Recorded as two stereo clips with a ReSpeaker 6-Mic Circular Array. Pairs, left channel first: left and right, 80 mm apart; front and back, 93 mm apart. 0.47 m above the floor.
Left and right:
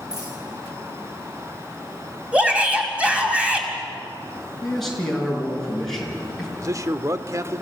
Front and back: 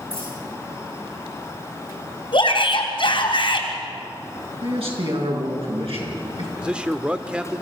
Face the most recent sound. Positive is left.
turn(degrees=-105)